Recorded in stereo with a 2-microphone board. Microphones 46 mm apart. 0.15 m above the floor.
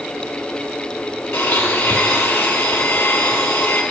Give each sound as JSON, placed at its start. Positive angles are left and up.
{"t": 1.3, "sound": "a blender", "side_deg": 65, "distance_m": 2.0}